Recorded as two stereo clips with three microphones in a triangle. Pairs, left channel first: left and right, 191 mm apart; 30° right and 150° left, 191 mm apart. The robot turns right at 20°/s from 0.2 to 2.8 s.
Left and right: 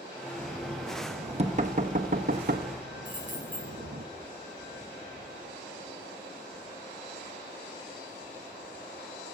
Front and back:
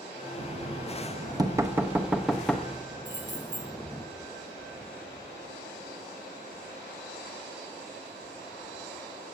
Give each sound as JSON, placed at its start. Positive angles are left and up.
{"t": 0.4, "sound": "knocking", "azimuth_deg": -160, "distance_m": 0.8}
{"t": 3.0, "sound": "keys jangling", "azimuth_deg": 135, "distance_m": 6.0}